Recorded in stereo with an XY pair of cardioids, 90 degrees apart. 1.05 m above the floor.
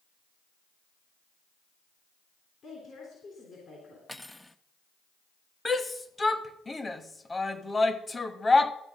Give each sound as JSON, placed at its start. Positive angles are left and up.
{"t": 2.6, "sound": "a woman speaking", "azimuth_deg": 65, "distance_m": 3.5}
{"t": 4.1, "sound": "cutlery clinking", "azimuth_deg": 5, "distance_m": 0.6}
{"t": 5.7, "sound": "a shout", "azimuth_deg": 25, "distance_m": 1.1}